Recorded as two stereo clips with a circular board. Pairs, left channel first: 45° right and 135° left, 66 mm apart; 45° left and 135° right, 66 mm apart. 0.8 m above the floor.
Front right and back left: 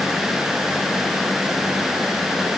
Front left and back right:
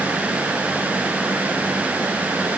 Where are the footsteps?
No footsteps in this recording.